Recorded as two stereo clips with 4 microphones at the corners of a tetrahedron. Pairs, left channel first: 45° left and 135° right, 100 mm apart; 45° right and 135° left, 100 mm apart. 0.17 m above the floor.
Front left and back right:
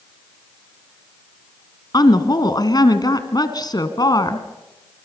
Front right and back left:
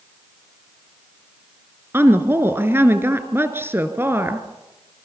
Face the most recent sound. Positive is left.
turn(degrees=75)